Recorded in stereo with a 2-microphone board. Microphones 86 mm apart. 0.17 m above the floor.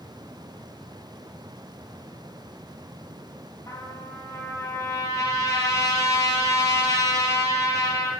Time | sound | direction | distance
3.7 | a trumpet | 40° left (ahead or behind) | 4 m